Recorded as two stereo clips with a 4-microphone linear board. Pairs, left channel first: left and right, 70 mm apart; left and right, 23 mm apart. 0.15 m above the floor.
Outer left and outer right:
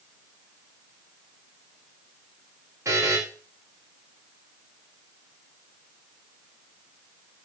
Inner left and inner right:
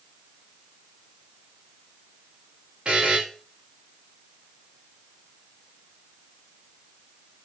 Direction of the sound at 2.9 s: 45° right (ahead or behind).